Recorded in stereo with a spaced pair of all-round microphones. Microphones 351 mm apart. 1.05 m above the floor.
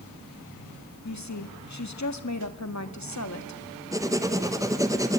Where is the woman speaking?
50° left (ahead or behind), 1.9 m.